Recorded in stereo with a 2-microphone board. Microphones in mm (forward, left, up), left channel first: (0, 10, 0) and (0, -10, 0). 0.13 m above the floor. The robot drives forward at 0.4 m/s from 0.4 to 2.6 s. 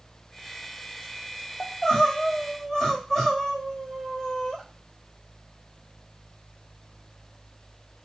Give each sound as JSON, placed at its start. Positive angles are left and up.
{"t": 1.6, "sound": "crying", "side_deg": 30, "distance_m": 1.0}